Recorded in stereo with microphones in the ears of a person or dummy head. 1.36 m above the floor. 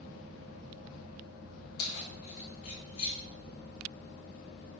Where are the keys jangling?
55° left (ahead or behind), 1.1 m; by 3.2 s 45° left (ahead or behind), 3 m.